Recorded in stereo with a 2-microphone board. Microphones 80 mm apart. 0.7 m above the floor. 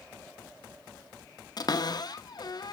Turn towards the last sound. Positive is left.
turn(degrees=55)  # may be behind; listen again after turning